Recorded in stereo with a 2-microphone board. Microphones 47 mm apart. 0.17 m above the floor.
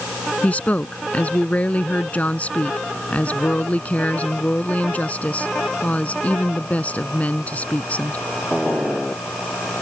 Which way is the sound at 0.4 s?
30° left (ahead or behind).